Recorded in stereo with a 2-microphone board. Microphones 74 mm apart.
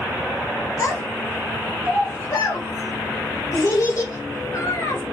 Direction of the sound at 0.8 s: 40° left (ahead or behind).